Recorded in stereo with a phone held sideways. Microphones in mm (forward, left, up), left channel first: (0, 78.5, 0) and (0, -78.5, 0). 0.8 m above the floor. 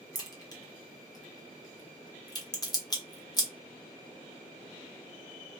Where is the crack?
25° left (ahead or behind), 1.0 m.